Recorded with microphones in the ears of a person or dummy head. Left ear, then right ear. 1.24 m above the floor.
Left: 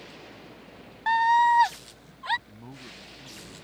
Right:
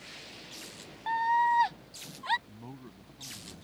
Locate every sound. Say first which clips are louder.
1.1 s a scream: left 6 dB; 40° left (ahead or behind); by 2.4 s 10° left (ahead or behind)
2.5 s a man speaking: left 4 dB; 5° right (ahead or behind)